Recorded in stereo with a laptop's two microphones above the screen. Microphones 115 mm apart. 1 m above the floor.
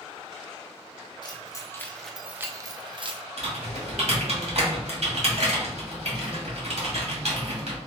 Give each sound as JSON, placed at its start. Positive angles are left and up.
{"t": 1.2, "sound": "keys jangling", "side_deg": 40, "distance_m": 0.8}
{"t": 3.4, "sound": "typing on a keyboard", "side_deg": -70, "distance_m": 1.9}